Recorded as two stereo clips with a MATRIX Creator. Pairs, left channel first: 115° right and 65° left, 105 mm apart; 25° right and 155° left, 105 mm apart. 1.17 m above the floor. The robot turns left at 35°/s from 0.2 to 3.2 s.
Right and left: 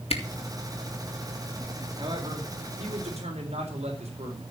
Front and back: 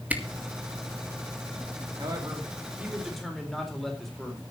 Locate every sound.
0.1 s a camera shutter: 130° right, 2 m
2.0 s a man speaking: 110° left, 3.5 m; by 4.4 s 65° left, 3.5 m